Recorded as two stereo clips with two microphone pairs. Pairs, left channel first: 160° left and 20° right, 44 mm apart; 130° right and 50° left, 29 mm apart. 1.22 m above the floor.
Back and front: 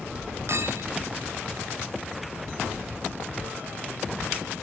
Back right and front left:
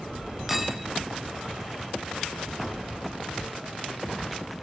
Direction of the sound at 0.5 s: 35° right.